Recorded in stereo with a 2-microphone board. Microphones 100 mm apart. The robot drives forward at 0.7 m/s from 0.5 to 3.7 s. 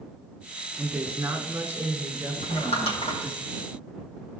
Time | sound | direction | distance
0.8 | a woman speaking | 25° right (ahead or behind) | 1.5 m
2.4 | crumpling | 80° left | 3.5 m